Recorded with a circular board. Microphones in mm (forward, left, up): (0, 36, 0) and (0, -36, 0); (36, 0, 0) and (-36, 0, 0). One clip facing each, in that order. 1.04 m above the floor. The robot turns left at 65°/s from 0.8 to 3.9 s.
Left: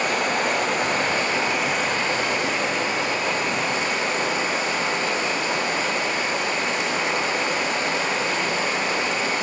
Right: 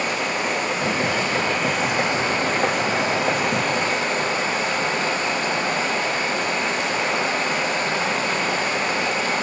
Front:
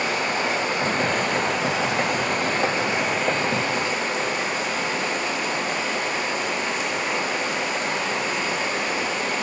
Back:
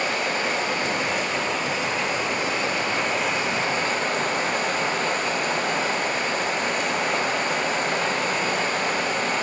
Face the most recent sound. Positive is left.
turn(degrees=-140)